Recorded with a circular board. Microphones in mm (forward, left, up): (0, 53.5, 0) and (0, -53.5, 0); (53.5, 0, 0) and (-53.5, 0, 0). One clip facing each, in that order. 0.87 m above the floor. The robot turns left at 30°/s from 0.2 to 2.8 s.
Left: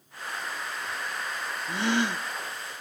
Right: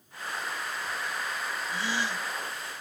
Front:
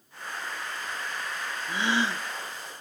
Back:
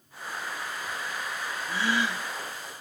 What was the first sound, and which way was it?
A gasp, 70° left.